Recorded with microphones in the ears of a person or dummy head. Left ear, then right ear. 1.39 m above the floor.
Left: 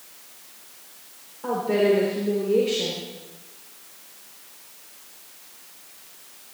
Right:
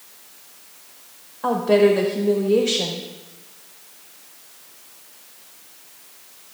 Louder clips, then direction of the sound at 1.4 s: Right 5 dB; 45° right (ahead or behind).